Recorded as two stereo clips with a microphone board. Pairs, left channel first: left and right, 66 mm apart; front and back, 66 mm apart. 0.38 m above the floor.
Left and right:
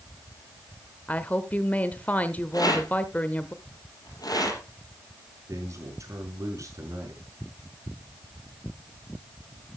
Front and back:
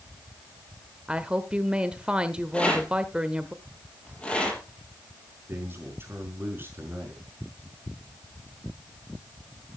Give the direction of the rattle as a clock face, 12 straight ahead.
9 o'clock.